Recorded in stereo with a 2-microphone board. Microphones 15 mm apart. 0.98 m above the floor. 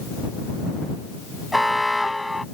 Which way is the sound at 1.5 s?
5° right (ahead or behind).